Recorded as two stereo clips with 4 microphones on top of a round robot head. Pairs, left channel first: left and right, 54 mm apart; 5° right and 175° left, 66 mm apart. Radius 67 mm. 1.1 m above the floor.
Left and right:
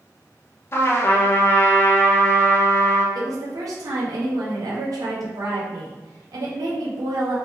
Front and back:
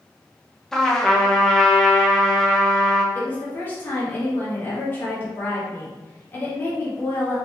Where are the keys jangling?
No keys jangling in this recording.